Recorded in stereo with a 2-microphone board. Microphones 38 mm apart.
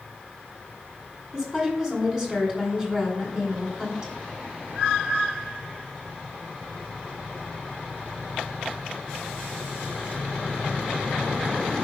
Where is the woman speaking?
15° right (ahead or behind), 2 m.